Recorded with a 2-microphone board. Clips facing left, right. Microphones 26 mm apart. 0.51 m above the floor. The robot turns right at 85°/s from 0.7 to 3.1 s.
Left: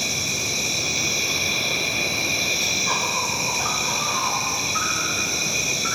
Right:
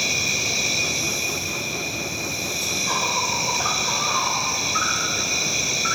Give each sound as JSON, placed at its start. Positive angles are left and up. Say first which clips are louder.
{"t": 0.0, "sound": "an insect", "louder": "right 2 dB", "azimuth_deg": -15, "distance_m": 1.1}